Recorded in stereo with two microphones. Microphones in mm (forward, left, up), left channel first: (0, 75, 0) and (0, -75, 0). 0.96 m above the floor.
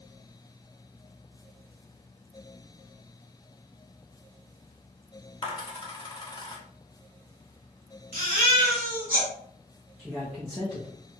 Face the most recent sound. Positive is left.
turn(degrees=-5)  # may be behind; listen again after turning